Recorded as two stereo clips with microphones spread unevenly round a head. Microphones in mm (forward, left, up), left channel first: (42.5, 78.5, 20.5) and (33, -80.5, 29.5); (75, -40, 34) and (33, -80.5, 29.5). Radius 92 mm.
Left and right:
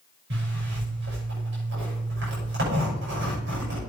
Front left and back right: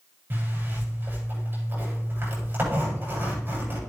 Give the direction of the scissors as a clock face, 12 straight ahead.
No scissors in this recording.